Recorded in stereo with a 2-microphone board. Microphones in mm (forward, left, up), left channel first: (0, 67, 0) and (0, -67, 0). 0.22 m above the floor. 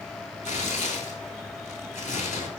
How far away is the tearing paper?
About 0.6 m.